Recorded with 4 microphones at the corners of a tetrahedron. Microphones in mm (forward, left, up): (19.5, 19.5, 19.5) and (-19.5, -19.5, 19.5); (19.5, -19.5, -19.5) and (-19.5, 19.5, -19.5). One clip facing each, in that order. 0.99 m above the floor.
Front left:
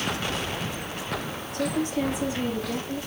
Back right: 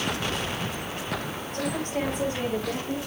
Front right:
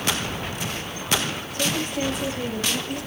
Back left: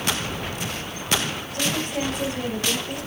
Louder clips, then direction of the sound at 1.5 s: Front left 3 dB, even; 170° left.